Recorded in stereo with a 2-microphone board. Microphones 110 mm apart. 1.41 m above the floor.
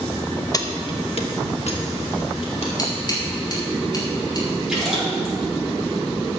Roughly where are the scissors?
Left.